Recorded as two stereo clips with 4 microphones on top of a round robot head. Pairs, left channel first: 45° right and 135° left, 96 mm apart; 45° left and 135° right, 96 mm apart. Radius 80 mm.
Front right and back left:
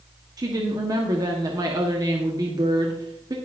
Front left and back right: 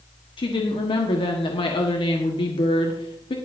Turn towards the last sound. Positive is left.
turn(degrees=80)